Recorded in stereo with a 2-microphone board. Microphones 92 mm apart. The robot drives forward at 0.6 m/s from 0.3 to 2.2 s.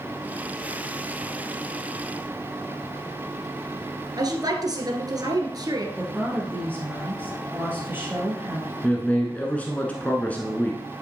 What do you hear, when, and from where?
4.2 s a woman speaking: 45° right (ahead or behind), 2.0 m
6.0 s a woman speaking: 25° right (ahead or behind), 2.5 m
8.8 s a man speaking: 15° left (ahead or behind), 1.3 m